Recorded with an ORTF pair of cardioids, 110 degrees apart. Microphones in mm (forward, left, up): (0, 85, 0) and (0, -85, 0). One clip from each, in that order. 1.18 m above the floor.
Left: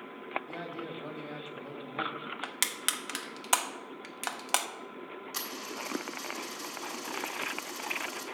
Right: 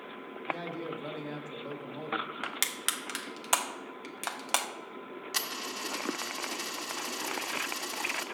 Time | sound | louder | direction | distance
0.5 | a man speaking | right 4 dB | 10° right | 1.3 m
2.4 | crushing | even | 5° left | 0.6 m
5.3 | a dropped coin | right 4 dB | 35° right | 1.6 m